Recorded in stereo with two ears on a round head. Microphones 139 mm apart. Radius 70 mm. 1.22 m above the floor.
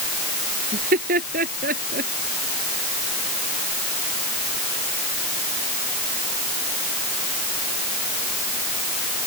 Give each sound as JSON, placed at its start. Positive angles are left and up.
{"t": 0.7, "sound": "laughter", "side_deg": -60}